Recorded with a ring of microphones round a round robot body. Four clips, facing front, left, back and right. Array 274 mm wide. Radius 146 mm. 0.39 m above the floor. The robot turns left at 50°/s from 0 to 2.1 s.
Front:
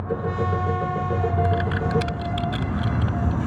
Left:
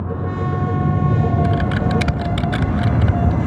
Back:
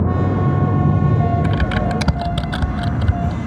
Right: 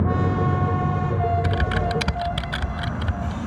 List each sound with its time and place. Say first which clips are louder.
0.0 s a vehicle: right 2 dB, back 6 dB; 165° right; by 3.5 s 90° left
1.4 s typing on a keyboard: left 5 dB, back 4 dB; 170° right; by 3.4 s 155° left